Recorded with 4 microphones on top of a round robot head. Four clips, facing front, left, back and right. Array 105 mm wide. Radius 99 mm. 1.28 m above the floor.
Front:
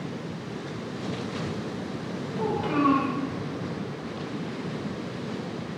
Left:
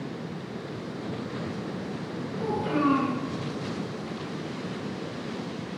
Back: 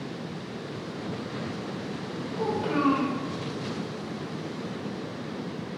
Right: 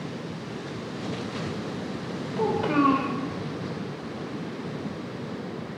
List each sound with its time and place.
2.4 s a child speaking: 100° right, 3 m